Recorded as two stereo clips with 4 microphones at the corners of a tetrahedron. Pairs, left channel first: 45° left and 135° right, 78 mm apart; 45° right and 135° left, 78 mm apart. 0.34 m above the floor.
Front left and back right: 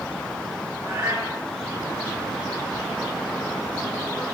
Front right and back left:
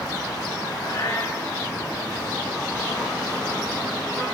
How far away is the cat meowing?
About 7 m.